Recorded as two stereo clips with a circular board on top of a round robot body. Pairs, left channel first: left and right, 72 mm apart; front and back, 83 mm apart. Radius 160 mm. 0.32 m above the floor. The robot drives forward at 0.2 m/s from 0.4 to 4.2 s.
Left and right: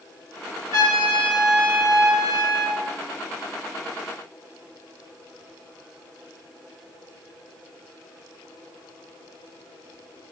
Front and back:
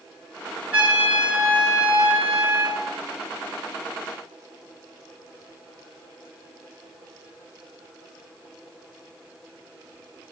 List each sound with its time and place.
0.7 s a trumpet: 110° right, 5 m; by 2.8 s 115° right, 5 m